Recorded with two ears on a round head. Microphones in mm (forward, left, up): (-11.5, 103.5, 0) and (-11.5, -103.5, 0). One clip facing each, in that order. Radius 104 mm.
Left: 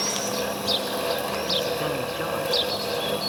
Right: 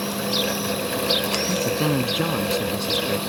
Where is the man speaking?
55° right (ahead or behind); by 3.2 s 40° right (ahead or behind).